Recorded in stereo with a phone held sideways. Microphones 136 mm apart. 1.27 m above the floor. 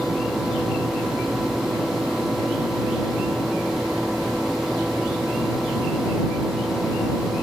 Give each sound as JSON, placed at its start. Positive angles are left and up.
{"t": 0.0, "sound": "a fan", "side_deg": 0}